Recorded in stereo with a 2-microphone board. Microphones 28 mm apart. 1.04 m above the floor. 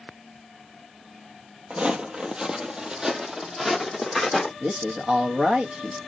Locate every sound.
1.7 s footsteps: 35° right (ahead or behind), 1.2 m; by 4.5 s 15° right (ahead or behind), 2 m
4.6 s a man speaking: 50° right (ahead or behind), 1.4 m